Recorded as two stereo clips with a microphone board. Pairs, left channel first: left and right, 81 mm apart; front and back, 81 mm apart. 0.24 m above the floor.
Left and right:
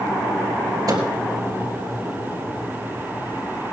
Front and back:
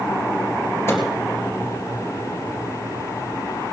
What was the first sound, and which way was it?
A microwave, 55° right.